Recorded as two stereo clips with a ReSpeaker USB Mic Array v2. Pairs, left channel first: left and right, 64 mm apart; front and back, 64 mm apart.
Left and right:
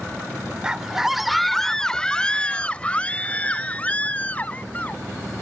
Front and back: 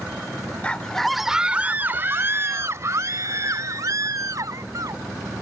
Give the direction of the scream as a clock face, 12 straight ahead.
1 o'clock.